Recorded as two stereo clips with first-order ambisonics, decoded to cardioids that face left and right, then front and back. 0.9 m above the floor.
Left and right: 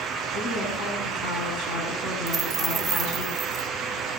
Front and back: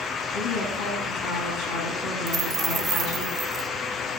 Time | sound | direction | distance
0.3 | a woman speaking | 45° left | 9 m
2.3 | a dropped coin | 140° right | 0.6 m